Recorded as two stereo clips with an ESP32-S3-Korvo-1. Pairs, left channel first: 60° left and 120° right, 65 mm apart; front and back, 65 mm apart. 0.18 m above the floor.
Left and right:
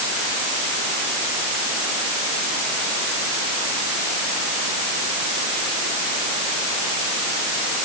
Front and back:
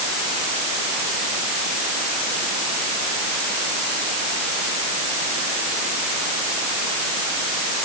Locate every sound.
Only background noise.